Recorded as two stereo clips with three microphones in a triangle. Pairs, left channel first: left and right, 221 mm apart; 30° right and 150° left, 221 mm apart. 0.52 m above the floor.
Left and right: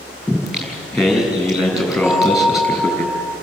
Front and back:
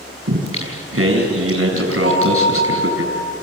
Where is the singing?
Straight behind, 6.5 m.